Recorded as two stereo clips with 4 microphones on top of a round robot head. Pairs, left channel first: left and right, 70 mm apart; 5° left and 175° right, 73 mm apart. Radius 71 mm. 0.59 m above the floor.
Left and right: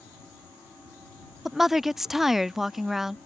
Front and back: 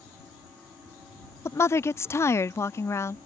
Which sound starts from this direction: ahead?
A woman speaking, at 1.4 s.